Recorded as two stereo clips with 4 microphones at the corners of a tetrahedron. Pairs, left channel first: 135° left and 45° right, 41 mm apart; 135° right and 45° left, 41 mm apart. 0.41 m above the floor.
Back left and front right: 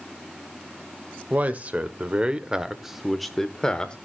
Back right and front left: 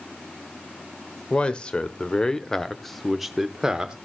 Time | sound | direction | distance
1.3 | a man speaking | 80° right | 1.3 m